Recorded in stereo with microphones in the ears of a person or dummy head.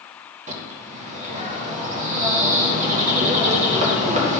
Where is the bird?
40° right (ahead or behind), 2.0 m.